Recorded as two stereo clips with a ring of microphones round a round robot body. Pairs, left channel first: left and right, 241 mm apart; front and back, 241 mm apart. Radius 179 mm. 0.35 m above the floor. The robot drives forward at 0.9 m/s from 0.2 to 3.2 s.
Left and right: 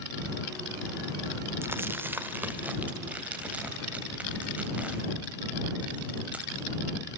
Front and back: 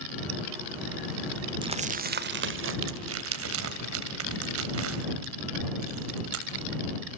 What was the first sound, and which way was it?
Crumpling, 155° right.